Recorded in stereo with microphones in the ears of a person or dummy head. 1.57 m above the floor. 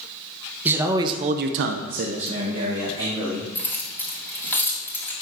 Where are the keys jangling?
15° left (ahead or behind), 2.5 m.